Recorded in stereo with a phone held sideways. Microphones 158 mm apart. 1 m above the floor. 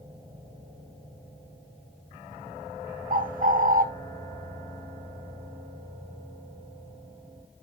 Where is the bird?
60° right (ahead or behind), 0.7 m.